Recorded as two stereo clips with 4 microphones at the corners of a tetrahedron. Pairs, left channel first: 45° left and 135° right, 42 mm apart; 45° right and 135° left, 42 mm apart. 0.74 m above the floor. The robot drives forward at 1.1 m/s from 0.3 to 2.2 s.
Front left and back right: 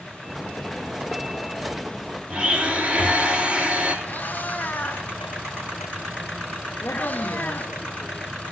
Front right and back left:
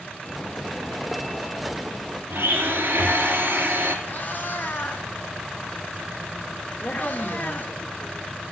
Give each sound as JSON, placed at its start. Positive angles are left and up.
{"t": 2.3, "sound": "a blender", "azimuth_deg": 170, "distance_m": 3.5}
{"t": 4.0, "sound": "a cat meowing", "azimuth_deg": 0, "distance_m": 2.0}
{"t": 6.8, "sound": "a woman speaking", "azimuth_deg": 5, "distance_m": 1.9}